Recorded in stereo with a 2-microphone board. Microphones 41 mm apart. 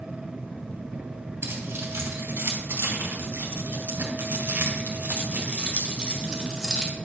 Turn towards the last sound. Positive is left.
turn(degrees=-15)  # may be behind; listen again after turning